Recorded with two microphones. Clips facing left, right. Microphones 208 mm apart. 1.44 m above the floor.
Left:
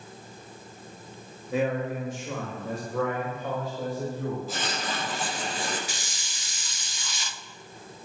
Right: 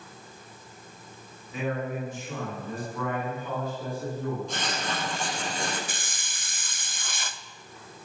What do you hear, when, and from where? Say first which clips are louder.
1.5 s a man speaking: left 4 dB; 85° left, 6.5 m; by 4.4 s 80° left, 8.5 m
4.5 s writing: even; 5° left (ahead or behind), 7.5 m
5.9 s a hiss: even; 50° right (ahead or behind), 0.6 m